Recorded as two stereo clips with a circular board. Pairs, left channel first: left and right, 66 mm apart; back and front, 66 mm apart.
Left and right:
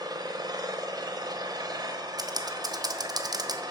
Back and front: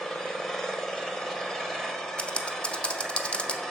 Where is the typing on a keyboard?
105° right, 0.6 m.